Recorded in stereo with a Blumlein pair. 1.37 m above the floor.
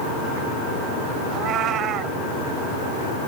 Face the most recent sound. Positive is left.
turn(degrees=-30)